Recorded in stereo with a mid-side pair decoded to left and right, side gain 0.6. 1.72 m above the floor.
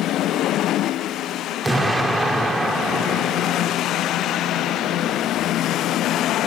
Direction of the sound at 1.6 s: 20° right.